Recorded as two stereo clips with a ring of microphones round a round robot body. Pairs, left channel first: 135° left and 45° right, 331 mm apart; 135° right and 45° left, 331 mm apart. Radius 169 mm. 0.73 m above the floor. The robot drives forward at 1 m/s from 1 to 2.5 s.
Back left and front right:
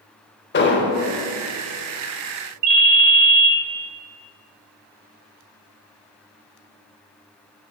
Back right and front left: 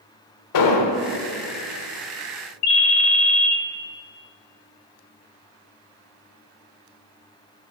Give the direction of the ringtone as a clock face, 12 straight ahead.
3 o'clock.